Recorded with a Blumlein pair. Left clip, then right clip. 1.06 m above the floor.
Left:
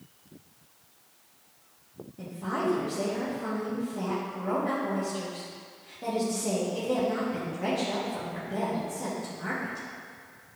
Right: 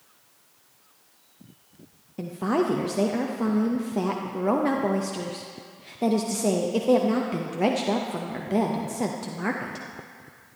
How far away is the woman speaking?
About 0.6 m.